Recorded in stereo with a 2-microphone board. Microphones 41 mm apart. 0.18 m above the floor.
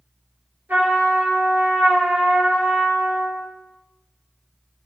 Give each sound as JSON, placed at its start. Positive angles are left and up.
{"t": 0.7, "sound": "a trumpet", "side_deg": -65, "distance_m": 1.6}